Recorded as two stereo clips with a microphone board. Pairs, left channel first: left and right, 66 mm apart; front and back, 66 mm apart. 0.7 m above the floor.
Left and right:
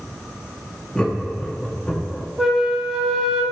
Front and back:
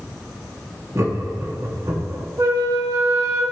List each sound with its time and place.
0.9 s laughter: 160° left, 0.8 m
2.4 s a flute: 175° right, 0.9 m